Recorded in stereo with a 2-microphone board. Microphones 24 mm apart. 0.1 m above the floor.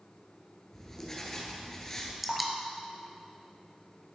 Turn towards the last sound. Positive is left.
turn(degrees=0)  # may be behind; listen again after turning